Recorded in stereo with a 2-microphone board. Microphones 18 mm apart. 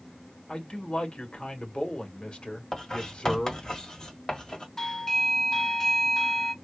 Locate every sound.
0.5 s a man speaking: 60° left (ahead or behind), 1.5 m
2.7 s writing: 40° left (ahead or behind), 1.8 m
4.8 s a doorbell: 30° left (ahead or behind), 0.6 m